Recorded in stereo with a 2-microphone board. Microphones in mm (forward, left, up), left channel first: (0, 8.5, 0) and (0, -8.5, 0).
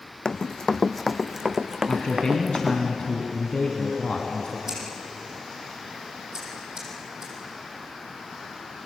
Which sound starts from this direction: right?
Scissors, at 4.7 s.